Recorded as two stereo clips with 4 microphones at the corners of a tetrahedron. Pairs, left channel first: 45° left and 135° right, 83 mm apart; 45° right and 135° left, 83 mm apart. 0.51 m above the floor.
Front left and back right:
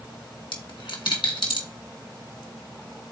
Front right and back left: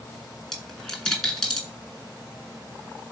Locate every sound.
0.5 s a dropped coin: 40° left, 2.5 m